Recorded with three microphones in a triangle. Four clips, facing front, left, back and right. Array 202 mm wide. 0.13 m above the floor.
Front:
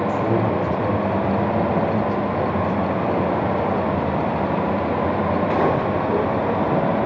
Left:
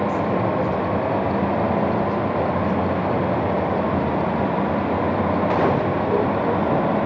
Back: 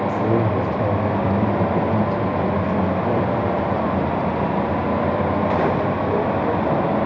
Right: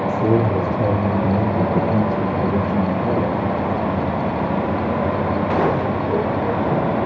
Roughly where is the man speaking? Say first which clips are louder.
Right 3 dB, back 2 dB; right.